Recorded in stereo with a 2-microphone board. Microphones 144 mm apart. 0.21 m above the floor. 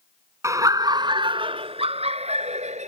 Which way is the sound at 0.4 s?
20° right (ahead or behind).